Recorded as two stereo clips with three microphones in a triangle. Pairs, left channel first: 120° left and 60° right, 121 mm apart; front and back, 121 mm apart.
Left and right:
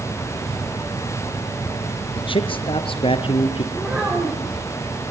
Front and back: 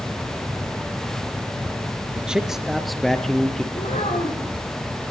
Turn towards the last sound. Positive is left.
turn(degrees=20)